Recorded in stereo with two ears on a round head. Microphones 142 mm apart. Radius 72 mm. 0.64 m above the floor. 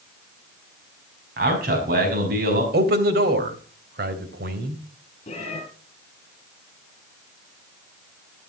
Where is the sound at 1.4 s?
65° right (ahead or behind), 5 m.